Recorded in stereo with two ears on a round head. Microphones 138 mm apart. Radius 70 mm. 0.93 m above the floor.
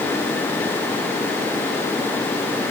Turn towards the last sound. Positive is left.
No sound to turn to.